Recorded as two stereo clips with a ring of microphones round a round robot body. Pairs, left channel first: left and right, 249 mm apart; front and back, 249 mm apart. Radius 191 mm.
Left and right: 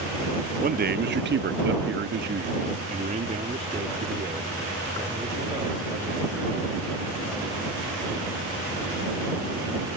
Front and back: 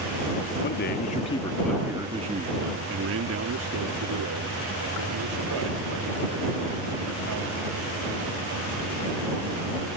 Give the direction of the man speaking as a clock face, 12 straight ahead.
1 o'clock.